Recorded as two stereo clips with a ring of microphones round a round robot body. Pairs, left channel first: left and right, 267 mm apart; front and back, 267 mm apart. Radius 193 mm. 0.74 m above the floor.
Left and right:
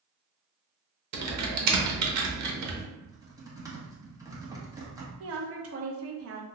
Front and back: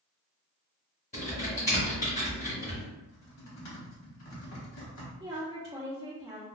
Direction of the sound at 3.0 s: 15° right.